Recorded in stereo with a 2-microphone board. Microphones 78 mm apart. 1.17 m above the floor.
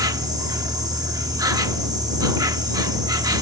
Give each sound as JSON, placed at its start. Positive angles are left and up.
{"t": 0.0, "sound": "an insect", "side_deg": -55}